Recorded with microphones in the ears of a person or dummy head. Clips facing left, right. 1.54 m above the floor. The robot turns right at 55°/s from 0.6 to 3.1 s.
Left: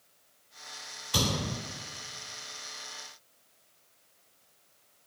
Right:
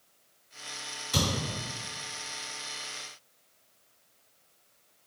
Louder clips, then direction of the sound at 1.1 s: Even; 45° right (ahead or behind).